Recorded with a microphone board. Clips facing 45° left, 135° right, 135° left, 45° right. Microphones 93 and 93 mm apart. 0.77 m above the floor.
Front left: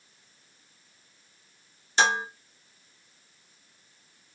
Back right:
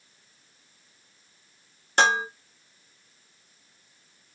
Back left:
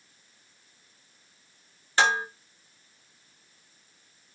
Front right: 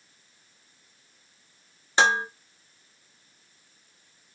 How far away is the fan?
No fan in this recording.